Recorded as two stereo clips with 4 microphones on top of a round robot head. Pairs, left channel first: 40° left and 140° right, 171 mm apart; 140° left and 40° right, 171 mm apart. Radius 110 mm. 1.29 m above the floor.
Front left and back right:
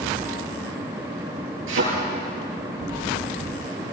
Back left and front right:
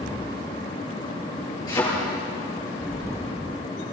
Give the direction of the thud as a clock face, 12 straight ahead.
5 o'clock.